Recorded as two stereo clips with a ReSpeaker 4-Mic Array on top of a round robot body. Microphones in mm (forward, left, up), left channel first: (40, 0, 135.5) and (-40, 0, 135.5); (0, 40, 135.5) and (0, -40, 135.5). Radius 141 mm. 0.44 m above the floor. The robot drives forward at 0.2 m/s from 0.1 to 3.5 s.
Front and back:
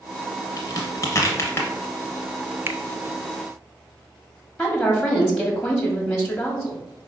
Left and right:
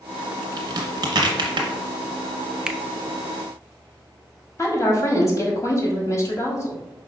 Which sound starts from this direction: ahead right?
A crack, at 0.6 s.